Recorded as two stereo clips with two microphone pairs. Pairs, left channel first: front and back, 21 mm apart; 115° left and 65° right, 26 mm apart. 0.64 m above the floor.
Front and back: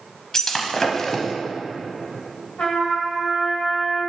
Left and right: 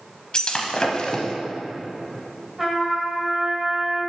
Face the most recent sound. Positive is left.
turn(degrees=5)